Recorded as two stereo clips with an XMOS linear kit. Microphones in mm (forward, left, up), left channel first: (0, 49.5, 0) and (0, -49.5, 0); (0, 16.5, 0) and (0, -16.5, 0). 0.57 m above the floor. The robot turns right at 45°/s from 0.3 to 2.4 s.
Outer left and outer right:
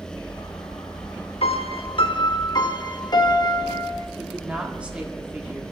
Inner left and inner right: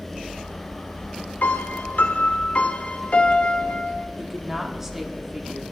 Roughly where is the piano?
Left.